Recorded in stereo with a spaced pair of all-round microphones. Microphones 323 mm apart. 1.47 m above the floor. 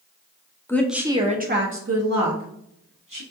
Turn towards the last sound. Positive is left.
turn(degrees=-70)  # may be behind; listen again after turning